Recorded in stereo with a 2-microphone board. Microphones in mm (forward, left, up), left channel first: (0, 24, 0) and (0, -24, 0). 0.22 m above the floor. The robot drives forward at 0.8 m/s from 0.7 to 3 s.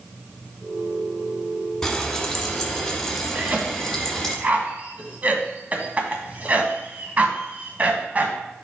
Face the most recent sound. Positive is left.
turn(degrees=-35)  # may be behind; listen again after turning